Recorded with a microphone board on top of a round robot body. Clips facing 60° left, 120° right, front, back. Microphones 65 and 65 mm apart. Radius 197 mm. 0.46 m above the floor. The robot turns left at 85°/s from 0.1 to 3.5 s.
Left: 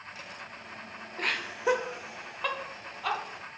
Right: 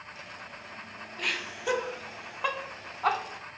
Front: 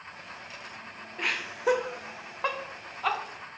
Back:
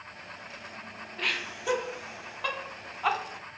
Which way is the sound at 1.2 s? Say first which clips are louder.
Left 3 dB, front 2 dB; 65° left.